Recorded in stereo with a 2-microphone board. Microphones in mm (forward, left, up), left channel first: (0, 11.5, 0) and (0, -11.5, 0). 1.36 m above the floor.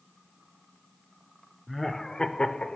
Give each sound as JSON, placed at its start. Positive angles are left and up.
{"t": 1.7, "sound": "laughter", "side_deg": 5, "distance_m": 0.6}